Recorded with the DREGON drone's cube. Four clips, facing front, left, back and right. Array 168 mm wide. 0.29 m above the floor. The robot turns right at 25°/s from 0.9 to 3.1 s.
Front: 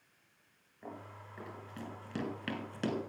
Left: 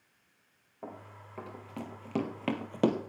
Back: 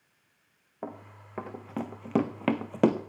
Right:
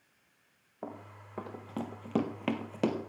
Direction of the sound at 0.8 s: 160° right.